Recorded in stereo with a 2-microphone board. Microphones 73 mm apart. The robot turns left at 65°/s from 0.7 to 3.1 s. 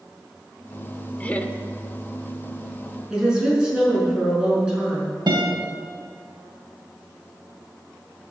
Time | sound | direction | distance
1.2 | laughter | 20° left (ahead or behind) | 0.8 m
3.1 | a woman speaking | 10° right (ahead or behind) | 5.5 m
5.3 | a guitar | 60° right (ahead or behind) | 2.5 m